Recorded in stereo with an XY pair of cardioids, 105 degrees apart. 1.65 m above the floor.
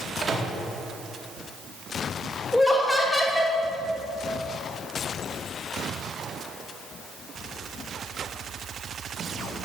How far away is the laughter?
About 3 m.